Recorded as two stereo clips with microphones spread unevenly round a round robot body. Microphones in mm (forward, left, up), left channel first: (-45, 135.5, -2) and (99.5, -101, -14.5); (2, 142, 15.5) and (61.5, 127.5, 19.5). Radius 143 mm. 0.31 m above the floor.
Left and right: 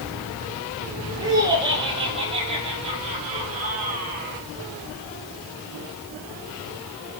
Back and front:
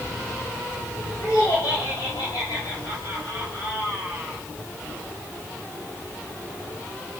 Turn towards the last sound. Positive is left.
turn(degrees=-120)